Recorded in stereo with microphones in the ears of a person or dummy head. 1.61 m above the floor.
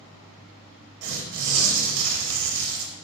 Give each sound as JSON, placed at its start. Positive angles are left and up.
{"t": 1.0, "sound": "tearing paper", "side_deg": -75, "distance_m": 0.8}